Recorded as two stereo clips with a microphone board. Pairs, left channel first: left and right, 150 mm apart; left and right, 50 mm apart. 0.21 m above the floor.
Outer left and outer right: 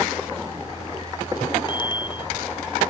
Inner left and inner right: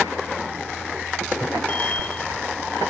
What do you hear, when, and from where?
1.7 s a bicycle bell: 30° left (ahead or behind)